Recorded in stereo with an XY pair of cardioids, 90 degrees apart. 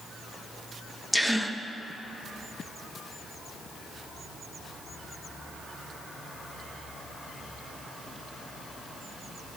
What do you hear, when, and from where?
1.1 s a gasp: 5° right, 0.9 m